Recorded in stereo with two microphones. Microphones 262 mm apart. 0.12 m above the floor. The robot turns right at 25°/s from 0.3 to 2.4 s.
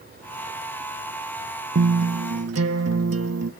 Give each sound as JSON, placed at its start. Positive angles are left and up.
{"t": 1.8, "sound": "a guitar", "side_deg": -65, "distance_m": 0.8}